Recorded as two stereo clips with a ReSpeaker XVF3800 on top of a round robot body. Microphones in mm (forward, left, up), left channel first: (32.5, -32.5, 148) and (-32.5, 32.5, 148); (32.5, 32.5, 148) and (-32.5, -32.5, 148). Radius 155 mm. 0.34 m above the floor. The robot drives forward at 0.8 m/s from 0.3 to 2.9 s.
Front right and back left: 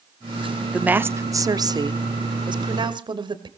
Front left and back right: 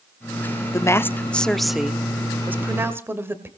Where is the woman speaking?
65° left, 1.0 m; by 3.5 s 160° left, 1.8 m.